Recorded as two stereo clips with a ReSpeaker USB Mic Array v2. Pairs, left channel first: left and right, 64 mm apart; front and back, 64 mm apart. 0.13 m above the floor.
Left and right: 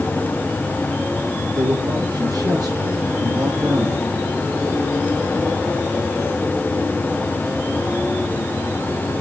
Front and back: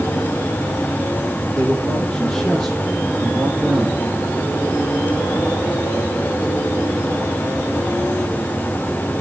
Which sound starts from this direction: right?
A man speaking, at 1.6 s.